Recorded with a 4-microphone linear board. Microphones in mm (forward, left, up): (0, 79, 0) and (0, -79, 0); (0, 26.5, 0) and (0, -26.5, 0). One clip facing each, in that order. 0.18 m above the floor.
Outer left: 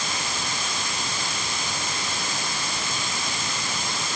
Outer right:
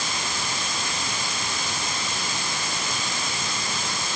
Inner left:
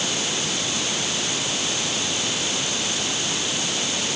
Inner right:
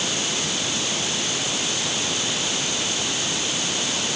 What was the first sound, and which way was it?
Only background noise.